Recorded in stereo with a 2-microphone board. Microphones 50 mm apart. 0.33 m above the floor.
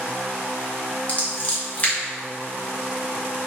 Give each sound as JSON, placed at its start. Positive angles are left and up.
{"t": 1.1, "sound": "scissors", "side_deg": 30, "distance_m": 1.5}